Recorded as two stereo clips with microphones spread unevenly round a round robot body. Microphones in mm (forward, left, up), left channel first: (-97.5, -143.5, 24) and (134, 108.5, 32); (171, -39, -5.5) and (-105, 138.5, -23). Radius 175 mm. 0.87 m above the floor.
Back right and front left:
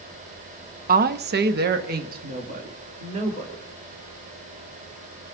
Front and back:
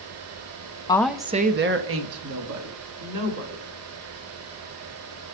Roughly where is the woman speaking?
Ahead left.